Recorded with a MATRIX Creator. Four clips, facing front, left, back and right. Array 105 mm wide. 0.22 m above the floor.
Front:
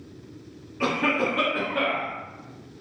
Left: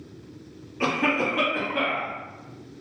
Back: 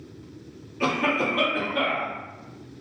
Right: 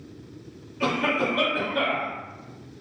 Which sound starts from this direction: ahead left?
A cough, at 0.8 s.